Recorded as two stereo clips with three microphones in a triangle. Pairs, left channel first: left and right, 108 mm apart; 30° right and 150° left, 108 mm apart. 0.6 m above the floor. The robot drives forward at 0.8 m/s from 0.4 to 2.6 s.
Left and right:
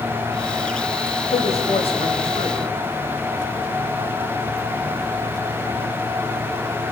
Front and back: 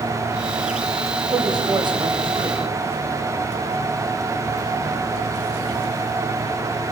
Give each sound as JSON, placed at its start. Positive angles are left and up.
{"t": 1.3, "sound": "a woman speaking", "azimuth_deg": 100, "distance_m": 3.0}